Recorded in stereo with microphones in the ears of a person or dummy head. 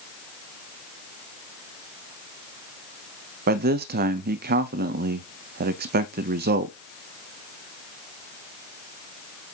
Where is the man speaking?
55° right (ahead or behind), 0.7 m.